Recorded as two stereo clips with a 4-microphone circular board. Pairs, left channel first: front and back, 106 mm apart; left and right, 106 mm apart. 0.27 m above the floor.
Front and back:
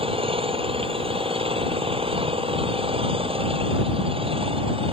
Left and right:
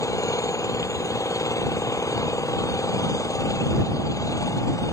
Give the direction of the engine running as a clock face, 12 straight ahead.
7 o'clock.